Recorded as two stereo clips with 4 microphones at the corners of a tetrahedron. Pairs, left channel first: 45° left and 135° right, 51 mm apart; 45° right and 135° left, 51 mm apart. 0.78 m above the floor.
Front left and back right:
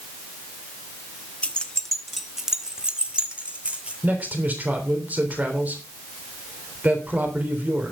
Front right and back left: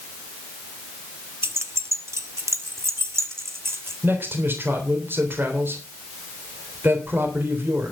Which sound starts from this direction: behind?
A man speaking, at 4.0 s.